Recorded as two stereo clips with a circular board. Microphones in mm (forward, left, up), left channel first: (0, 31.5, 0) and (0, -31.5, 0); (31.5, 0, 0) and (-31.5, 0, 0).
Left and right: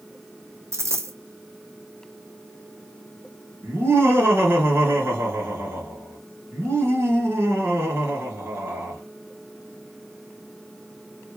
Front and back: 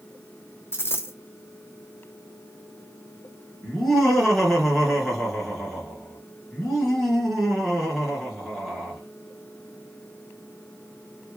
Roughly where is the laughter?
Right.